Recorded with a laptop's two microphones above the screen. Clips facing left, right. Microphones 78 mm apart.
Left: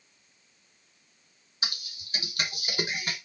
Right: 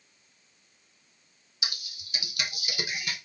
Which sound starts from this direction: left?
Typing on a keyboard, at 1.6 s.